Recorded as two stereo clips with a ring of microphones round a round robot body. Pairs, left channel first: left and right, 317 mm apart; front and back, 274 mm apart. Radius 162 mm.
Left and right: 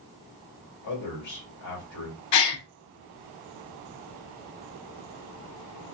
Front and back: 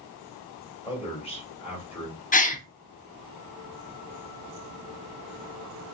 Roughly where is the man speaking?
Ahead left.